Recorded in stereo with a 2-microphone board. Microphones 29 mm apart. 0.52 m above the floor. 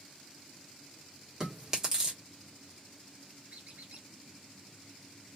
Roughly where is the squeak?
Right.